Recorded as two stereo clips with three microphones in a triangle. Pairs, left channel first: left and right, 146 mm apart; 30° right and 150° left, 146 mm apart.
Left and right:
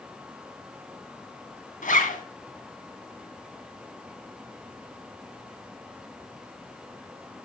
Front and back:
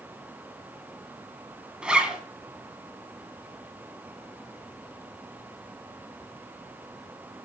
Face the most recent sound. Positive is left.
turn(degrees=65)